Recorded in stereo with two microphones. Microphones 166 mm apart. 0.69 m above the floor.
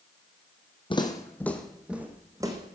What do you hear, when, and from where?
0.9 s footsteps: 30° left (ahead or behind), 1.8 m; by 2.8 s 25° right (ahead or behind), 2.5 m